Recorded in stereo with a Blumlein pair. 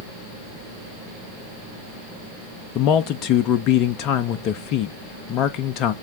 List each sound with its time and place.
2.8 s a man speaking: 35° left, 0.5 m